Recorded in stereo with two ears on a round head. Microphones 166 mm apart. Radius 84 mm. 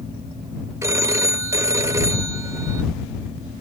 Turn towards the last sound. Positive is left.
turn(degrees=-15)  # may be behind; listen again after turning